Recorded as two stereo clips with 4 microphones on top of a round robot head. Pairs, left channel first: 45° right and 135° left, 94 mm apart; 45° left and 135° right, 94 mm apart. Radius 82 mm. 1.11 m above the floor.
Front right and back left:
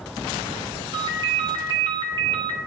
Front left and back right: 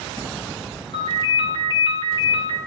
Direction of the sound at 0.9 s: 90° left.